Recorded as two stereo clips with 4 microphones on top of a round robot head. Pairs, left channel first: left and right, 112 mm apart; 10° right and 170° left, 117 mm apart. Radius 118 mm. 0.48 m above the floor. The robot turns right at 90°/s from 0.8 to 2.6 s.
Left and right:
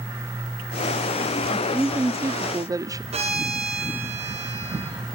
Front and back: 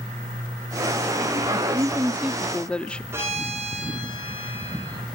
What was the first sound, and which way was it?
A woman speaking, straight behind.